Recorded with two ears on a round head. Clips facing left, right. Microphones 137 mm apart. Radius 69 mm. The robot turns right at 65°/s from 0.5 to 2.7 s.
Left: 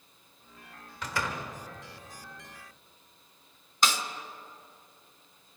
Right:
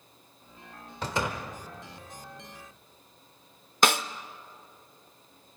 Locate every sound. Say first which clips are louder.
1.0 s a door slam: right 3 dB; 30° right (ahead or behind), 1.7 m; by 1.4 s 5° right (ahead or behind), 1.7 m
3.8 s a snare drum: right 4 dB; 50° right (ahead or behind), 0.6 m